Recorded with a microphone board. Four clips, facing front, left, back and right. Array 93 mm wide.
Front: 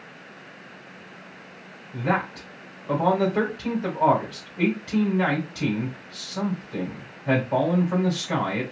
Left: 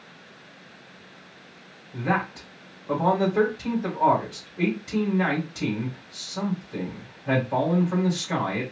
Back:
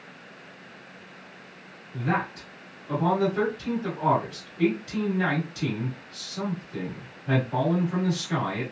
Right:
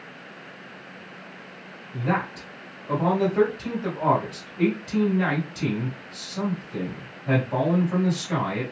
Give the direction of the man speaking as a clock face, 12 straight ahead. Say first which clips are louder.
Even, front 2 dB; 12 o'clock.